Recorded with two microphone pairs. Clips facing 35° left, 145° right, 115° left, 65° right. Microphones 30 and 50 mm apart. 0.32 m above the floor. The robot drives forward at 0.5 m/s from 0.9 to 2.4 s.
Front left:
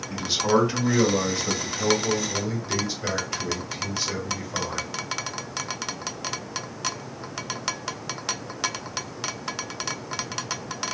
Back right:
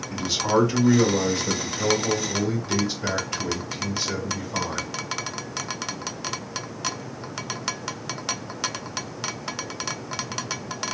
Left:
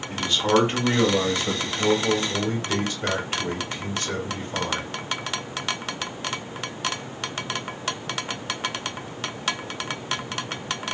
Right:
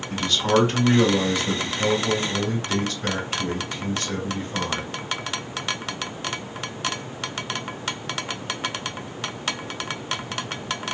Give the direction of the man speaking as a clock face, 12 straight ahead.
9 o'clock.